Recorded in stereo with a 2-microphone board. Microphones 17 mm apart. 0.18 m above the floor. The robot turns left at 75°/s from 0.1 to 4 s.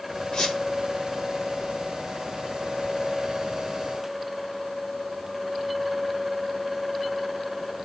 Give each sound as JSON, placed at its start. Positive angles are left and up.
{"t": 0.3, "sound": "a squeak", "side_deg": 45, "distance_m": 1.6}